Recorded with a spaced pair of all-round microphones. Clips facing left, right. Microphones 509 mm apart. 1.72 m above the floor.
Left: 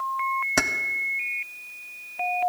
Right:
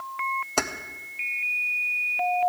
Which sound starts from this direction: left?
Keys jangling, at 0.6 s.